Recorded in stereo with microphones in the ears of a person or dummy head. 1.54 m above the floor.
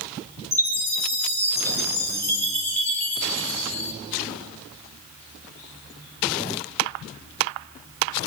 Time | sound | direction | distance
0.5 | a chime | 10° left (ahead or behind) | 6.5 m